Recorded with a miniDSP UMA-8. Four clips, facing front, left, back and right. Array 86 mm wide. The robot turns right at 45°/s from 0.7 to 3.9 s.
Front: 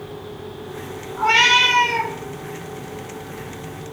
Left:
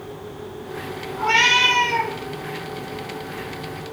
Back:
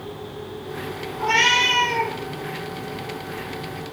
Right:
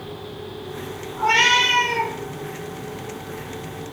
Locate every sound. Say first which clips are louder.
1.2 s a cat meowing: right 1 dB, front 3 dB; straight ahead, 1.6 m; by 2.1 s 45° left, 1.6 m